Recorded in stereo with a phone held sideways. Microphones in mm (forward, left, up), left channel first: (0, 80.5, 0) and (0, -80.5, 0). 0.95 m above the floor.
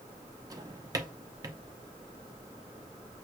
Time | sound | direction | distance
0.5 | a drawer | 25° right (ahead or behind) | 0.6 m